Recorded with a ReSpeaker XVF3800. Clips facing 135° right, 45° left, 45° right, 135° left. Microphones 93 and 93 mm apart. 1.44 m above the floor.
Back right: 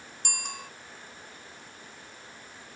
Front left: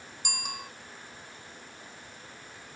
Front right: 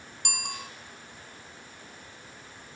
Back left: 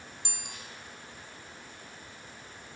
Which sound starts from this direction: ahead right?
A bicycle bell, at 0.2 s.